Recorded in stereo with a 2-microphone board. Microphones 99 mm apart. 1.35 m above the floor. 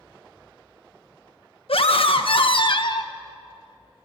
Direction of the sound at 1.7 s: 75° left (ahead or behind).